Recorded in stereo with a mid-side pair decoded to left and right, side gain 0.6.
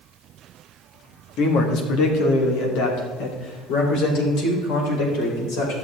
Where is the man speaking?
70° left, 1.9 m; by 5.7 s 80° left, 5 m.